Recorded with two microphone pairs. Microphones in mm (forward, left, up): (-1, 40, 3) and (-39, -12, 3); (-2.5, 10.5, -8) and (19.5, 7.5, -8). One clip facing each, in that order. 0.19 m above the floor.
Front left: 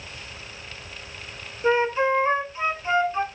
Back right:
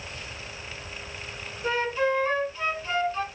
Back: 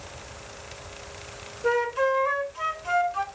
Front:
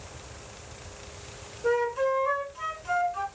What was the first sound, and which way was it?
A flute, 110° left.